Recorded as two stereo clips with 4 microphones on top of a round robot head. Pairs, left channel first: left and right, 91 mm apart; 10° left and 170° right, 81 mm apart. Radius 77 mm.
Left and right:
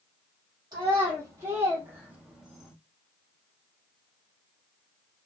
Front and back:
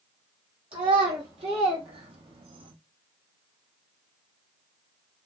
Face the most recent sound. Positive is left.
turn(degrees=175)